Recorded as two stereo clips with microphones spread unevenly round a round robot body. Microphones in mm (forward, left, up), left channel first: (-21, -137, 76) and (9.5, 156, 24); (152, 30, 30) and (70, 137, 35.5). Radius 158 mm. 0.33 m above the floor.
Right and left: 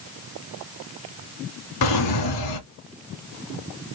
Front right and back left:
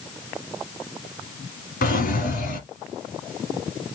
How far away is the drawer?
About 1.6 m.